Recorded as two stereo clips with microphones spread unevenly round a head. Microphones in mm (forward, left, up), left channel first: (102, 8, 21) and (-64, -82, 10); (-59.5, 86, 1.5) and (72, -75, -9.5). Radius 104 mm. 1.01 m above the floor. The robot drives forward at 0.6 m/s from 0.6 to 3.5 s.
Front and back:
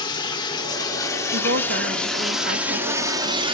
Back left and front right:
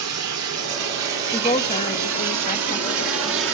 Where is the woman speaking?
160° right, 1.3 m; by 3.4 s 170° right, 2.5 m.